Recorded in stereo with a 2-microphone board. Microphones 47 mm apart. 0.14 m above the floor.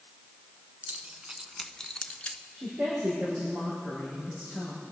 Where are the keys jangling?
30° right (ahead or behind), 1.2 m; by 2.4 s 30° left (ahead or behind), 1.3 m.